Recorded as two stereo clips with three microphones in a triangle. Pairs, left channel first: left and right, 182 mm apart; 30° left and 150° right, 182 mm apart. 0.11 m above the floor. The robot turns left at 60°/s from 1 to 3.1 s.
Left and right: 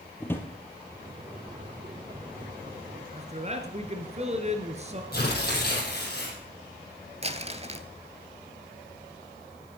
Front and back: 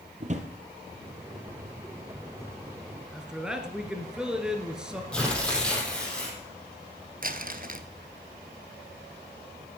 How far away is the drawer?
About 1.6 m.